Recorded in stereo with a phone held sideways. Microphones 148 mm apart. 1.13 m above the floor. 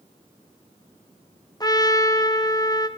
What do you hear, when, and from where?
1.6 s a trumpet: 25° left (ahead or behind), 0.7 m